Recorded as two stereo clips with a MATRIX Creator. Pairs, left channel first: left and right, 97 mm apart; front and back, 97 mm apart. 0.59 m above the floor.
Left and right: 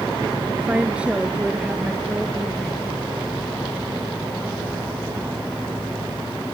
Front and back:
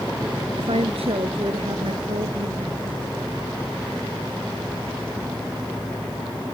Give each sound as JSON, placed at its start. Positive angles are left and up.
{"t": 0.6, "sound": "a woman speaking", "azimuth_deg": -170}